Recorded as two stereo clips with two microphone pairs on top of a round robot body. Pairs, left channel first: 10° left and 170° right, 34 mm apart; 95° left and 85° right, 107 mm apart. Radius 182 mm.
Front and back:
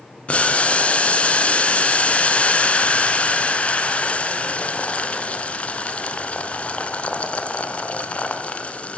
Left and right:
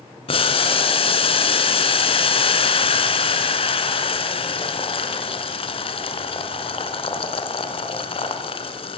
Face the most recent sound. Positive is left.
turn(degrees=65)